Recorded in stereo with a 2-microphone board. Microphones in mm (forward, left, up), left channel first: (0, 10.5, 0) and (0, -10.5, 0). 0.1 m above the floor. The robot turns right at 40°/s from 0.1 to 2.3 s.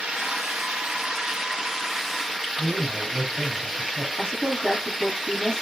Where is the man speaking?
35° right (ahead or behind), 3 m.